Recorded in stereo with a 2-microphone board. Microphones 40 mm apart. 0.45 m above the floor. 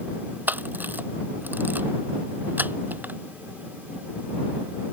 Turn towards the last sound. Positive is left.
turn(degrees=-55)  # may be behind; listen again after turning